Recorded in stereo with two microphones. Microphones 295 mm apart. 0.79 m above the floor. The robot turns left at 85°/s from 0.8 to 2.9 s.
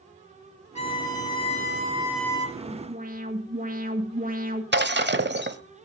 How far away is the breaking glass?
About 1.2 m.